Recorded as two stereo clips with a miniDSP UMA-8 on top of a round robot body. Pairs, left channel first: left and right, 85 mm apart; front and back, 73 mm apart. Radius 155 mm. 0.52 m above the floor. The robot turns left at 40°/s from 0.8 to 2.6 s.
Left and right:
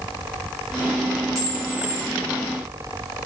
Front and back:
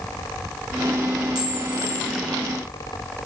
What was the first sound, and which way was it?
A camera shutter, 145° right.